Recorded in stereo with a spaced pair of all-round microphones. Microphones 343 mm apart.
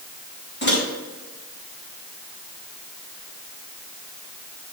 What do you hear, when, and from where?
0.6 s a microwave: 35° left (ahead or behind), 4.5 m